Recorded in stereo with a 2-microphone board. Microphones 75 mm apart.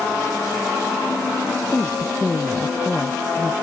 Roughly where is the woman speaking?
Centre.